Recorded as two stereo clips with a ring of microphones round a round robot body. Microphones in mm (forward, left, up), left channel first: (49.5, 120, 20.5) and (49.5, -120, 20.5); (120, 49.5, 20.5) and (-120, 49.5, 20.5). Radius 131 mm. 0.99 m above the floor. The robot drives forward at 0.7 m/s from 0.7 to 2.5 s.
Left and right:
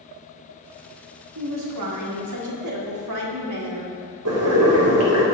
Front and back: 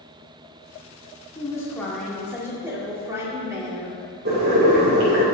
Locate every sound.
1.4 s a woman speaking: 75° right, 2.0 m; by 4.0 s 100° right, 1.9 m
4.2 s boiling: 125° right, 2.5 m